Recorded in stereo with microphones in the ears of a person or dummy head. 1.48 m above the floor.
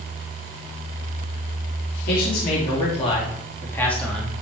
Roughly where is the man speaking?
Left.